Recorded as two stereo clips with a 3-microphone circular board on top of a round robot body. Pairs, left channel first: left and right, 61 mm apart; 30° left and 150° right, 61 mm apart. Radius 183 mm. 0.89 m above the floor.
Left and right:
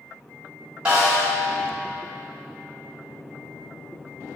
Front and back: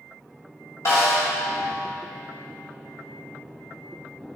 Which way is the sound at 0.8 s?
10° right.